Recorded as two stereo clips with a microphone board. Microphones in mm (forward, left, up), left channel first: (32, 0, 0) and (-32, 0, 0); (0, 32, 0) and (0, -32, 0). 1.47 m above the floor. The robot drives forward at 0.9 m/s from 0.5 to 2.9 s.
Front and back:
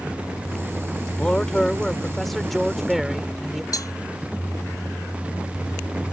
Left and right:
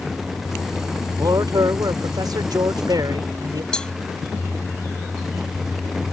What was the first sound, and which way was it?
A man speaking, 75° right.